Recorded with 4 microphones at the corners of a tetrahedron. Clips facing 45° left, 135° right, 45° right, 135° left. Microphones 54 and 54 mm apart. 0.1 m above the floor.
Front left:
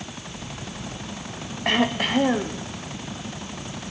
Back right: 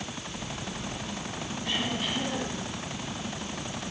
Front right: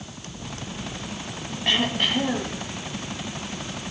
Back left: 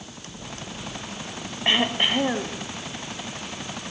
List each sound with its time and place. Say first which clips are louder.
1.6 s throat clearing: front left 10 dB, back left 1 dB; 70° left, 3.5 m